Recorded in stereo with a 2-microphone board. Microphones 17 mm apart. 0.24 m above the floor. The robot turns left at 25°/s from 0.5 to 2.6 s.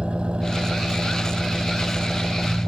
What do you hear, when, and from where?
0.0 s an engine running: 70° right; by 2.7 s 120° right